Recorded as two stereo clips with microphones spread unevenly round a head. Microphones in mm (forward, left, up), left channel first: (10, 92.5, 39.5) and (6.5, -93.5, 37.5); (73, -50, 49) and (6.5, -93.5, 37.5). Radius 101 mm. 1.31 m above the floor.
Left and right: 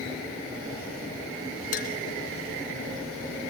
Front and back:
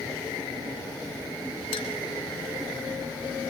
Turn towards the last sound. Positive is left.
turn(degrees=45)